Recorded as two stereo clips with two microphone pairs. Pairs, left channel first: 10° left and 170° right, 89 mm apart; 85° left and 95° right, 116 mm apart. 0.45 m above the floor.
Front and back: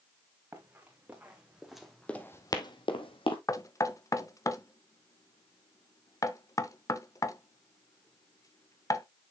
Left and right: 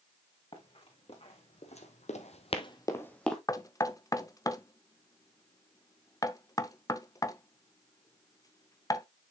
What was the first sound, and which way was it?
Running footsteps, 120° left.